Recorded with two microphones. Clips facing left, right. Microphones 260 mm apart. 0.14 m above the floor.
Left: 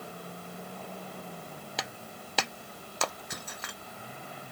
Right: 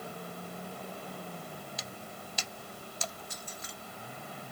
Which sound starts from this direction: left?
Breaking glass, at 1.8 s.